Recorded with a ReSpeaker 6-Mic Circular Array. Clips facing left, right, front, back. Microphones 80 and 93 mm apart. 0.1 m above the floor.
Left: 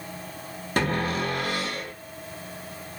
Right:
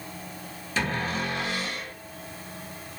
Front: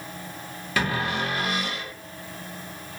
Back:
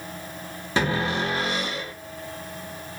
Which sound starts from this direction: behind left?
A cupboard door, at 0.8 s.